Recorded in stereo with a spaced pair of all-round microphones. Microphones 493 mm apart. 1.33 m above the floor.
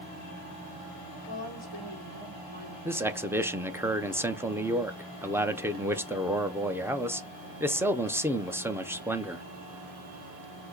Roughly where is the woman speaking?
Right.